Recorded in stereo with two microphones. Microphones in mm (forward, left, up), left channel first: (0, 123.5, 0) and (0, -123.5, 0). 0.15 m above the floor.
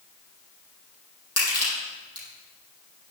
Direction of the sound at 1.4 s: 70° left (ahead or behind).